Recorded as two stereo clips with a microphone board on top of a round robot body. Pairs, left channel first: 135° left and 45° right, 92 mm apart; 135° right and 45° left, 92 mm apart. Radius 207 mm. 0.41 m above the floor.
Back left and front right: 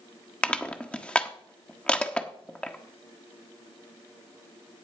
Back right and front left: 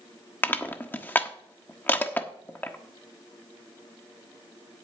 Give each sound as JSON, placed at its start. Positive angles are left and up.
{"t": 0.4, "sound": "crushing", "azimuth_deg": -165, "distance_m": 1.4}